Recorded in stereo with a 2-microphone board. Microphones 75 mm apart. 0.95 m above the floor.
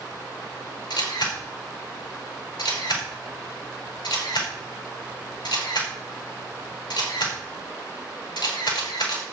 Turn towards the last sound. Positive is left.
turn(degrees=75)  # may be behind; listen again after turning